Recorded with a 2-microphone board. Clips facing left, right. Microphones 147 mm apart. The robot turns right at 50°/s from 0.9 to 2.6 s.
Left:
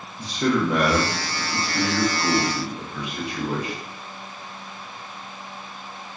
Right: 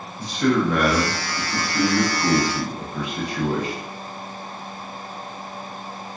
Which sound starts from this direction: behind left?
A man speaking, at 0.2 s.